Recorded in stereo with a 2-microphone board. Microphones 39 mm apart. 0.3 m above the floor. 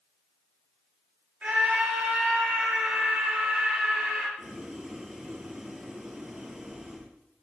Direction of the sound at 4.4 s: 10° right (ahead or behind).